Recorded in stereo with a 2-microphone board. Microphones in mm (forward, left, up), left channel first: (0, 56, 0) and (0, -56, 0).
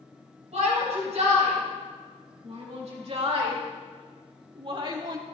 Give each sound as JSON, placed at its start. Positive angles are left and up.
{"t": 0.5, "sound": "a shout", "side_deg": -75, "distance_m": 6.0}